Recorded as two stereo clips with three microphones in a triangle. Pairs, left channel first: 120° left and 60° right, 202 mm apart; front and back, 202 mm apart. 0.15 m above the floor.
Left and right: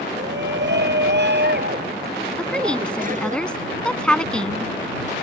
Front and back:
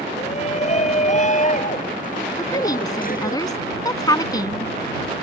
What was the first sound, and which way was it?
A shout, 55° right.